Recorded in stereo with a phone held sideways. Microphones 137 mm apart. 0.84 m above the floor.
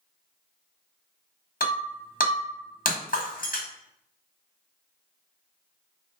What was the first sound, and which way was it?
Breaking glass, 80° left.